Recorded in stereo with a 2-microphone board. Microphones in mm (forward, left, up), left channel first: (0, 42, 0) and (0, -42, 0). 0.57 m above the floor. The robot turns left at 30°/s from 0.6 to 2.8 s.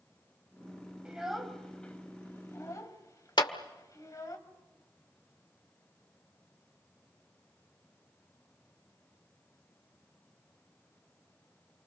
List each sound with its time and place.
1.1 s a child speaking: 10° right (ahead or behind), 2.5 m; by 4.4 s 40° left (ahead or behind), 2.5 m
3.4 s a clap: 60° left (ahead or behind), 1.4 m